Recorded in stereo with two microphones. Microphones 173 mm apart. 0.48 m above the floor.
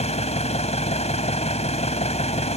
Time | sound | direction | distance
0.0 | an engine running | 45° left (ahead or behind) | ?